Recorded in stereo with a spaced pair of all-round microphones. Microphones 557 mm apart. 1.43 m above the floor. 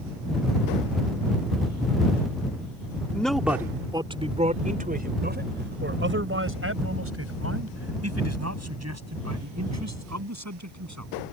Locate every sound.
3.1 s a man speaking: 5° left (ahead or behind); by 11.1 s 30° right (ahead or behind)